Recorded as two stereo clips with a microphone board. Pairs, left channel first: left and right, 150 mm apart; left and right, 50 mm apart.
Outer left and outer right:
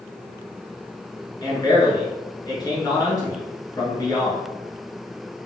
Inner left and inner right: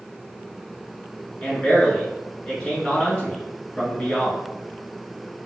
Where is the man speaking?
25° left (ahead or behind), 1.2 m.